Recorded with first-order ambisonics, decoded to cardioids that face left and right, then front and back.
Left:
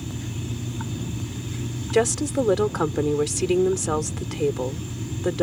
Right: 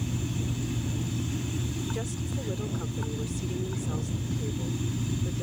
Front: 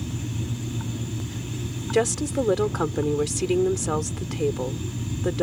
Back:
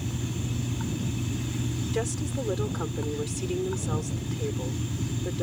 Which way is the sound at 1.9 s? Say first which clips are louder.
Left 15 dB, front 10 dB; 55° left.